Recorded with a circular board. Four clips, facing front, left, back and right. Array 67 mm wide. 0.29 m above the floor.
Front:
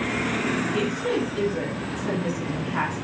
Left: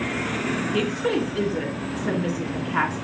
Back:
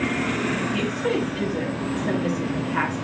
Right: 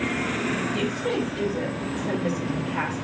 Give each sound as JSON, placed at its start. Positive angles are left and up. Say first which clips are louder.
{"t": 0.7, "sound": "a woman speaking", "louder": "left 2 dB, back 1 dB", "azimuth_deg": 100, "distance_m": 3.5}